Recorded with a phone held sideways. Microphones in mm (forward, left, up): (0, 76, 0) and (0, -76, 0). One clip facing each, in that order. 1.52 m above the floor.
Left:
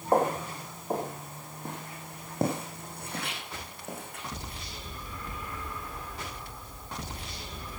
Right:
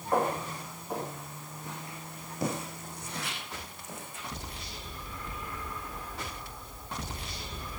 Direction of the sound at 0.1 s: 45° left (ahead or behind).